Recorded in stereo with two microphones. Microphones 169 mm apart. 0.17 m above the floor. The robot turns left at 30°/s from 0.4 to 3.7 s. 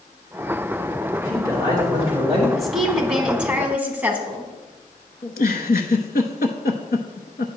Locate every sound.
1.2 s a man speaking: 160° left, 3 m; by 2.5 s 125° left, 3 m
2.6 s a woman speaking: centre (ahead or behind), 1.0 m; by 4.5 s 10° right (ahead or behind), 1.0 m
5.2 s a giggle: 70° left (ahead or behind), 0.7 m